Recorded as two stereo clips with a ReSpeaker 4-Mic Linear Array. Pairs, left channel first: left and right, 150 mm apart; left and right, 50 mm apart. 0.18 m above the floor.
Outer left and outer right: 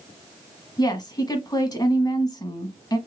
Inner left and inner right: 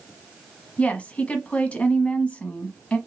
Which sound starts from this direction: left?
A woman speaking, at 0.8 s.